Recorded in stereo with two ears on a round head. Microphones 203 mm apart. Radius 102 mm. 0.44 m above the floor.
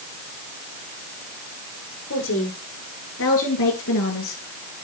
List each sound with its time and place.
2.1 s a woman speaking: 60° left (ahead or behind), 8 m; by 4.4 s 70° left (ahead or behind), 8.5 m